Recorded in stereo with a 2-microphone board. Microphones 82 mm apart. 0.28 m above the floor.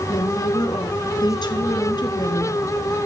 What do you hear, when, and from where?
0.1 s a woman speaking: 60° left (ahead or behind), 3.5 m